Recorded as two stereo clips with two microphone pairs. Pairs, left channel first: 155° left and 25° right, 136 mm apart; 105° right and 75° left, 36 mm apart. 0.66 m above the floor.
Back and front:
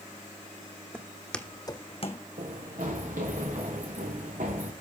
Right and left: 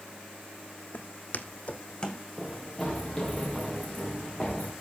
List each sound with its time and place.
0.9 s footsteps: 100° right, 1.4 m; by 2.2 s 175° right, 1.8 m
2.4 s running footsteps: 20° right, 4.5 m; by 4.7 s 25° right, 3.5 m